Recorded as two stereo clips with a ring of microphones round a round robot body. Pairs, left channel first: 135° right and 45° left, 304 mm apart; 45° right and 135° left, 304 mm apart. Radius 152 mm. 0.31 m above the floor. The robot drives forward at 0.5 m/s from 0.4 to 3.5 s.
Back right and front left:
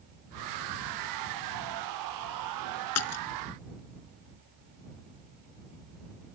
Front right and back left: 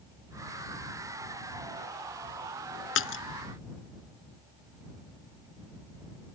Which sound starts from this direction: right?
A splash, at 3.0 s.